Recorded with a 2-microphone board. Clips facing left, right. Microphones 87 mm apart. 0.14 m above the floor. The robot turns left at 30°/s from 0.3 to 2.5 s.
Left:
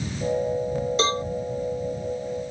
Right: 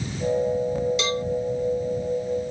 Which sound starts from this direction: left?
A cowbell, at 1.0 s.